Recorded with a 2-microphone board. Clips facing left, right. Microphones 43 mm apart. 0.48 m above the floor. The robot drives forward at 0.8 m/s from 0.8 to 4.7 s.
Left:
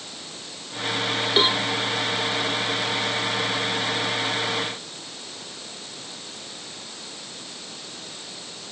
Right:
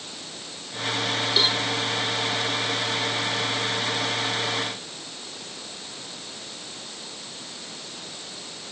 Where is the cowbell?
30° left (ahead or behind).